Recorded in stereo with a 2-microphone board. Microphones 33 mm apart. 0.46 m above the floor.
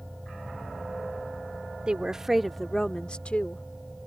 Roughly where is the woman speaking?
Right.